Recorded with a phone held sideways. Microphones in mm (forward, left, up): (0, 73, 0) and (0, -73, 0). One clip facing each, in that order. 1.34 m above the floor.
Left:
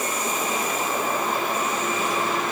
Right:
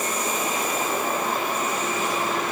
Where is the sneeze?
I don't hear a sneeze.